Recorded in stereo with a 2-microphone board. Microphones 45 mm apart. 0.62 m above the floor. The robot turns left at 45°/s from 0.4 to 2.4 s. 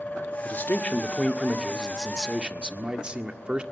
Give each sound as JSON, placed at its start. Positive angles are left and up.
{"t": 0.5, "sound": "a man speaking", "azimuth_deg": 60, "distance_m": 1.5}